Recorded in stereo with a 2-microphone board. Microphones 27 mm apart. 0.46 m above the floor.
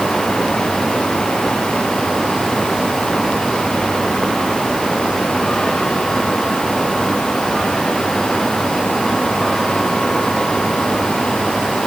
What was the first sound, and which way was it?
Only background noise.